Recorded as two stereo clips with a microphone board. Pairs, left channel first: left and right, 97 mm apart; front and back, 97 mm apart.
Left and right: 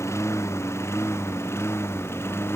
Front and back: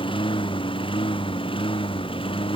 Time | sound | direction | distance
0.0 | a lawn mower | 30° left | ?